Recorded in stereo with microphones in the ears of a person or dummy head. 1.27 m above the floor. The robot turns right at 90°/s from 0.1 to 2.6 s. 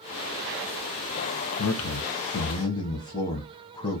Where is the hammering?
No hammering in this recording.